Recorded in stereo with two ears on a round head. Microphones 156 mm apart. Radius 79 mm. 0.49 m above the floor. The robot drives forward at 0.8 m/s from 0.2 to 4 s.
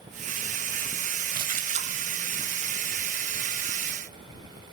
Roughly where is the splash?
Right.